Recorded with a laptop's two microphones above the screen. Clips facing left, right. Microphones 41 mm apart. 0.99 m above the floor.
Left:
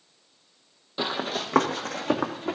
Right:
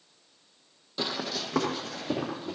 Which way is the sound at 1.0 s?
25° left (ahead or behind).